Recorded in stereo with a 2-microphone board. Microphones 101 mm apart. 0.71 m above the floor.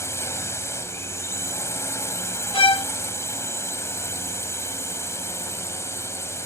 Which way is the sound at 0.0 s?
25° left (ahead or behind).